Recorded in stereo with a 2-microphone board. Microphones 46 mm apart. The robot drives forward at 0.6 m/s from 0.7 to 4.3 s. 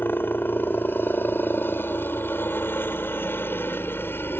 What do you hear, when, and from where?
0.0 s a helicopter: 50° left (ahead or behind)